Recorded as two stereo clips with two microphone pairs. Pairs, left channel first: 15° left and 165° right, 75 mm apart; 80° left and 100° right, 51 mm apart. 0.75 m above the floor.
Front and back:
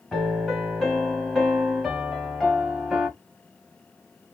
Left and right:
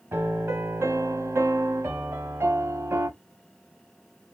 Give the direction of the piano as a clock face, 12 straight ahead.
2 o'clock.